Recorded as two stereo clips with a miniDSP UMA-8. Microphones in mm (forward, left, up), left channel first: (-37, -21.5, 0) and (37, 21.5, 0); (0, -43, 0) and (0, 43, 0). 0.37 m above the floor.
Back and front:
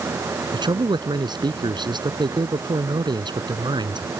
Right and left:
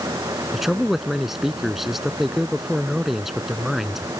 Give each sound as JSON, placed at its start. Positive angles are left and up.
{"t": 0.5, "sound": "a man speaking", "azimuth_deg": 5}